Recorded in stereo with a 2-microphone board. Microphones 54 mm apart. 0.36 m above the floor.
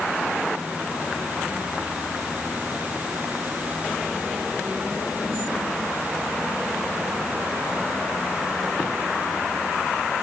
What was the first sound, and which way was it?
Only background noise.